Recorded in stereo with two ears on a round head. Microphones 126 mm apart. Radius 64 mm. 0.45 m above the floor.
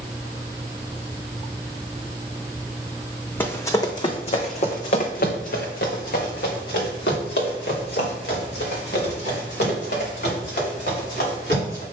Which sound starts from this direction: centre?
Running footsteps, at 3.4 s.